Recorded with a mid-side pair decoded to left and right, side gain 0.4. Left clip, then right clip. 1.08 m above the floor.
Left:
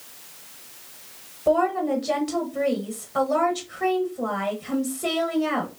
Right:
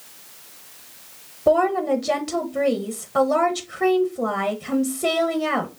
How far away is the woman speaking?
About 0.9 m.